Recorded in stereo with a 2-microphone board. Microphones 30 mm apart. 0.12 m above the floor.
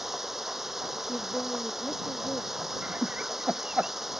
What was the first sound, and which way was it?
Running water, 10° right (ahead or behind).